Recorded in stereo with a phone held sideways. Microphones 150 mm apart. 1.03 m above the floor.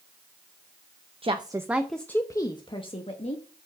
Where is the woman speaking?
35° right (ahead or behind), 0.8 m; by 3.4 s 45° left (ahead or behind), 1.6 m.